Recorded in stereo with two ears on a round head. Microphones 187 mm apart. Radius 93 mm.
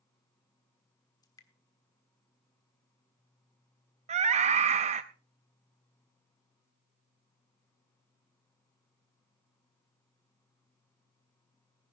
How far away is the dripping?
About 1.5 m.